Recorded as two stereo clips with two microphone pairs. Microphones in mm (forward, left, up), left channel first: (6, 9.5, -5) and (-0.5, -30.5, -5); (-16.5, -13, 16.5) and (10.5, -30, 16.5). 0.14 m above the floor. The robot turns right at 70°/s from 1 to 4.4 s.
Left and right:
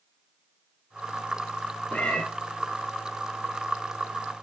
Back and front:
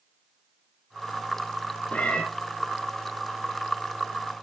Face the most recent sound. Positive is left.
turn(degrees=-65)